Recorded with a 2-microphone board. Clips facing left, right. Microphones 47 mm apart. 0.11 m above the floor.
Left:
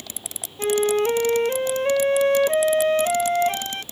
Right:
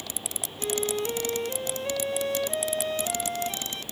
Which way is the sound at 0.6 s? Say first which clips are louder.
Left 9 dB; 45° left (ahead or behind).